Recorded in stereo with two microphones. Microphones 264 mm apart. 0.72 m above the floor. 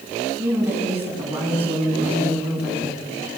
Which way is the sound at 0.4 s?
10° right (ahead or behind).